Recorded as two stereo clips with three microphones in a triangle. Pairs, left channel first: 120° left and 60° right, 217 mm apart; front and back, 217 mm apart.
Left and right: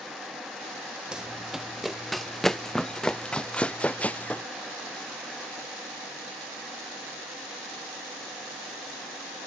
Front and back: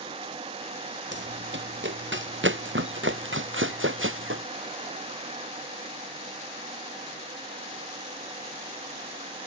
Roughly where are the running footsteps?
Behind right.